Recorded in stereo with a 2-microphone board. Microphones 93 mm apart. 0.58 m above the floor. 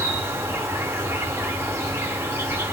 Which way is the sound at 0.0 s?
25° right (ahead or behind).